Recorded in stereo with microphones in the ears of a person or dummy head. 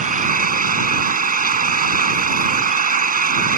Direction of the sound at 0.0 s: 40° right (ahead or behind).